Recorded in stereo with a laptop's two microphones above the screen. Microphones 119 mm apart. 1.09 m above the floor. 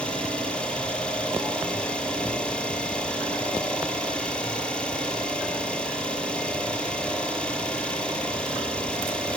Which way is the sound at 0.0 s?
10° left (ahead or behind).